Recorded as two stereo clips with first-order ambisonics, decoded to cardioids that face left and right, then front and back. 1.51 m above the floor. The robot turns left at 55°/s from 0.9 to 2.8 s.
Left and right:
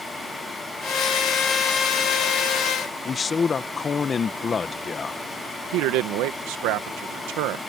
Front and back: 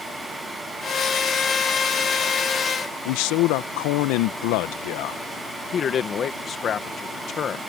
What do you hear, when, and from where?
3.0 s a man speaking: 20° left
5.7 s a man speaking: 60° right